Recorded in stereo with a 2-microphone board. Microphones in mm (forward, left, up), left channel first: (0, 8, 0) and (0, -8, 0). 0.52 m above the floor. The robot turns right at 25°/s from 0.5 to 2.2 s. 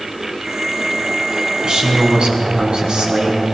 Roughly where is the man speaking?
Right.